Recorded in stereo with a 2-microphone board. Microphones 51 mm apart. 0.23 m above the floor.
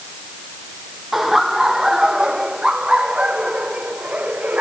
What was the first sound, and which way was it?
Laughter, 5° right (ahead or behind).